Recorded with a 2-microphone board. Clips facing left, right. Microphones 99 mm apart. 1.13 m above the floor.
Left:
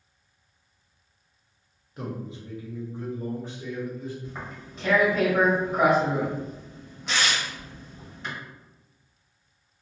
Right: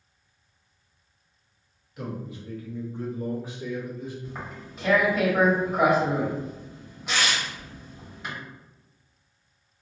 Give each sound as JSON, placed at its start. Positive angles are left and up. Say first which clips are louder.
{"t": 2.0, "sound": "a man speaking", "louder": "even", "side_deg": 40, "distance_m": 0.8}
{"t": 4.2, "sound": "tearing paper", "louder": "right 1 dB", "side_deg": -5, "distance_m": 1.5}